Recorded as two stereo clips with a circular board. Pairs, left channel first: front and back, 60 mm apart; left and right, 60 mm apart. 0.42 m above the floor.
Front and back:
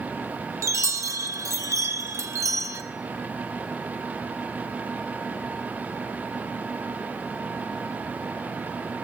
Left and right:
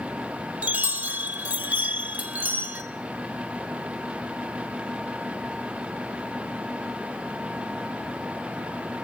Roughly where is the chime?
Behind right.